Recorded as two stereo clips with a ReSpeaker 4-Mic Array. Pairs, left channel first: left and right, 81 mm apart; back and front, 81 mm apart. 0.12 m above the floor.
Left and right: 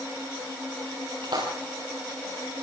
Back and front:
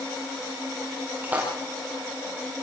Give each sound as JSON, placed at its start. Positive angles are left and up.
{"t": 1.2, "sound": "a splash", "azimuth_deg": -70, "distance_m": 10.0}